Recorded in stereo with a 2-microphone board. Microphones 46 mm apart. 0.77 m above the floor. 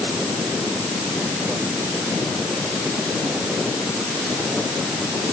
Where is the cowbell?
No cowbell in this recording.